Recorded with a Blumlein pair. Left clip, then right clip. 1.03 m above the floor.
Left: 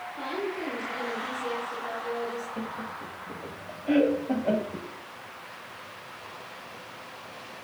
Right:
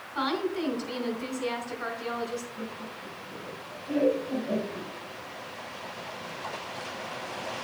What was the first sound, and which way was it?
A woman speaking, 60° right.